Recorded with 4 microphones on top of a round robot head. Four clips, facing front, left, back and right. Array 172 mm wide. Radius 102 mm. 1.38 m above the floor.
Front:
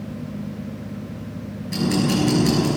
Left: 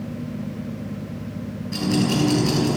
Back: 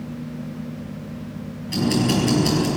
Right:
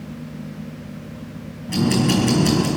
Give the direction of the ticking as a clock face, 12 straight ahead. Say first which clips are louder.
Right 3 dB, back 1 dB; 4 o'clock.